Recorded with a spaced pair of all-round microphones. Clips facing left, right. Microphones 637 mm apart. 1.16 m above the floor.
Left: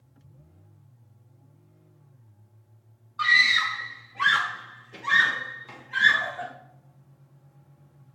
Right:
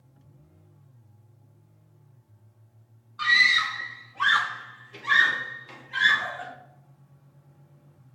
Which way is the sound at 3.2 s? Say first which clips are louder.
Even; 10° left (ahead or behind).